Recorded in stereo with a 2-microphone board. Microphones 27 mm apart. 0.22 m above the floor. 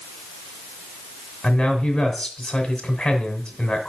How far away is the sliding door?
I don't hear a sliding door.